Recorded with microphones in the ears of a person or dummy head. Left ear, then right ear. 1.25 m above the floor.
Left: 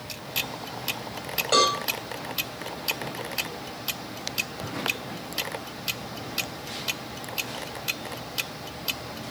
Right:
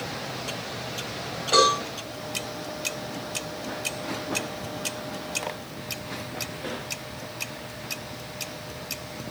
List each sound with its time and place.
1.5 s a cowbell: 35° left (ahead or behind), 6 m